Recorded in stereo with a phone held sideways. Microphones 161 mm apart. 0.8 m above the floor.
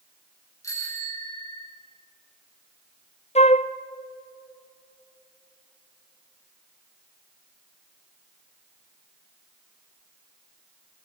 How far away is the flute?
About 0.6 m.